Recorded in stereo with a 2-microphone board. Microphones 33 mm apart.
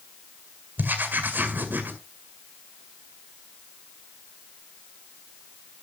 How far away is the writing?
About 2.0 m.